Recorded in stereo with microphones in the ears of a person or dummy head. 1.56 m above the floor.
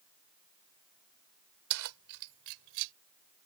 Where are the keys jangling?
75° right (ahead or behind); by 2.9 s 70° right (ahead or behind).